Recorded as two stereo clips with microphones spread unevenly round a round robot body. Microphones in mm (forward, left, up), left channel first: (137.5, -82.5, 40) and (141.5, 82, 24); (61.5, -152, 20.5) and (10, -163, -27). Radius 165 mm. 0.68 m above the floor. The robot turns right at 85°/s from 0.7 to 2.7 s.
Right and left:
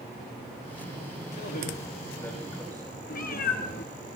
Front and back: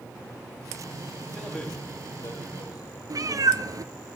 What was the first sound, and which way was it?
A man speaking, 90° right.